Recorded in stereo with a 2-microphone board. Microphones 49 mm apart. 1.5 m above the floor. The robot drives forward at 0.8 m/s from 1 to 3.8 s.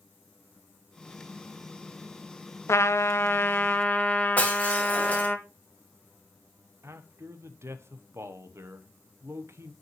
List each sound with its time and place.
2.7 s a trumpet: 60° left (ahead or behind), 0.6 m; by 5.4 s 30° left (ahead or behind), 1.0 m
4.4 s breaking glass: 25° left (ahead or behind), 2 m
6.8 s a man speaking: 60° right (ahead or behind), 1.0 m